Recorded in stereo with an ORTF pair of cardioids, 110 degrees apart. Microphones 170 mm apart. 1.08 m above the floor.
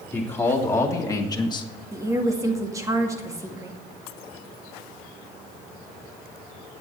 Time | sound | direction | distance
0.1 | a man speaking | 15° left | 3 m
1.9 | a woman speaking | 20° right | 1.9 m